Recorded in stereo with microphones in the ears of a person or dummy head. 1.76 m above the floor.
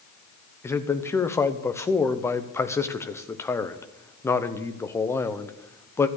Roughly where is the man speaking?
Centre.